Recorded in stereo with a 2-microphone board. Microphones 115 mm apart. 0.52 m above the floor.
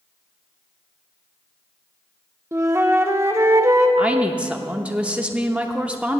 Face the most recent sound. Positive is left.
turn(degrees=-10)  # may be behind; listen again after turning